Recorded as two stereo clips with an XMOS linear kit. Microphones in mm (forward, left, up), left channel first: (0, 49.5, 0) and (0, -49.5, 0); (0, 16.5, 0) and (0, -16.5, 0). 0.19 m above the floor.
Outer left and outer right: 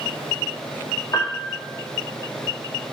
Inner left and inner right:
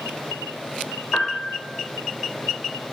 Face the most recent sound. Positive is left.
turn(degrees=35)  # may be behind; listen again after turning